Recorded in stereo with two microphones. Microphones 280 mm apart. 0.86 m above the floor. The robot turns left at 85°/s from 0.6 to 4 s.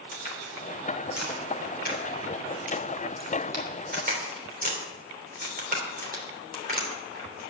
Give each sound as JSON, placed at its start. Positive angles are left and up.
{"t": 0.1, "sound": "a crack", "side_deg": 35, "distance_m": 3.0}